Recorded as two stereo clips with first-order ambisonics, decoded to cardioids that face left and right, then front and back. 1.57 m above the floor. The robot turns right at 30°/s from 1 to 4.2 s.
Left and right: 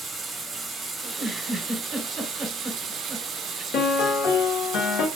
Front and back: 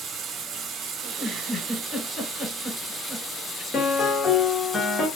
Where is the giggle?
115° right, 1.3 m; by 3.6 s 35° right, 1.3 m.